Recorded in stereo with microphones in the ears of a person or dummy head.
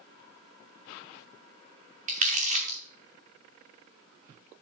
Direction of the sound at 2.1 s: 35° right (ahead or behind).